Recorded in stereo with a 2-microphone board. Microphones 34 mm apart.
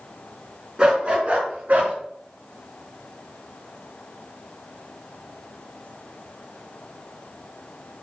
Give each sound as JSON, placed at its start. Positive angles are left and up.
{"t": 0.8, "sound": "a dog barking", "side_deg": -25, "distance_m": 3.0}